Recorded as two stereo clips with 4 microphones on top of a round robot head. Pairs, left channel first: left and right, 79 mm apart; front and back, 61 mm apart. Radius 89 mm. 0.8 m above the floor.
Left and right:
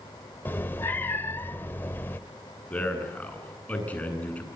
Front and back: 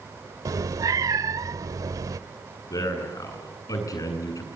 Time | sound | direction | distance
0.5 | a cat meowing | 160° left | 0.8 m
2.7 | a man speaking | 20° left | 8 m